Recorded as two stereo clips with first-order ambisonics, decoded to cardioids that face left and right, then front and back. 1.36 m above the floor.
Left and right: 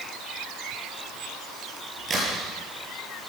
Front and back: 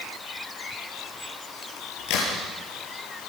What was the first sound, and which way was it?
A crack, 20° right.